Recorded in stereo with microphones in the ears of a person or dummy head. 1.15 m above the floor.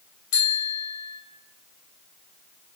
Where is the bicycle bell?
65° left (ahead or behind), 3.5 m.